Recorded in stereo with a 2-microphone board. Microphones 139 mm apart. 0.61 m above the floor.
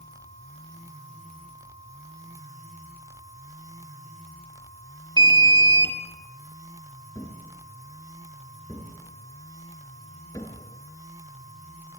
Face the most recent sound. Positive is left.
turn(degrees=25)  # may be behind; listen again after turning